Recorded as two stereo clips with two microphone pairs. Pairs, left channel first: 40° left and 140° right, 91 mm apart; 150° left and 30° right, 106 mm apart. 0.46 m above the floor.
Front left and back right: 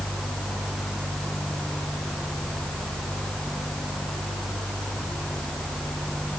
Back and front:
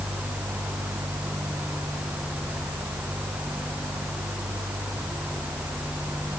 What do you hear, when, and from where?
Only background noise.